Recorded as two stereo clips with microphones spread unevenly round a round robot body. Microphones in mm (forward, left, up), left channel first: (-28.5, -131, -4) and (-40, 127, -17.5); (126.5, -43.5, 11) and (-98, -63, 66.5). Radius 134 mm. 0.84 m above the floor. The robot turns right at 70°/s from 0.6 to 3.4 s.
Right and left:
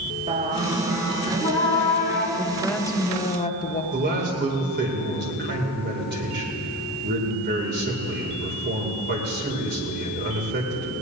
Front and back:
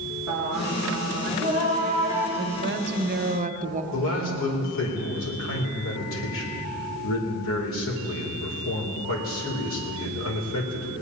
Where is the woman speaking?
160° left, 1.0 m; by 3.8 s 125° right, 1.0 m.